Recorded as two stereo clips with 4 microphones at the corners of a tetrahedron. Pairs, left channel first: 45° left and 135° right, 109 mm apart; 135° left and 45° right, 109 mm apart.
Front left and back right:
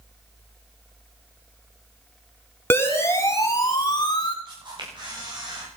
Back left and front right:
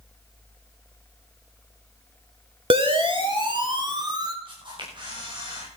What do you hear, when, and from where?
2.7 s a siren: 20° right, 2.5 m; by 4.3 s 5° left, 3 m
4.5 s a camera shutter: 90° right, 9.5 m